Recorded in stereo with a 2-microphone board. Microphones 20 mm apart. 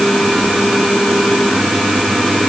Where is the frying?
I don't hear frying.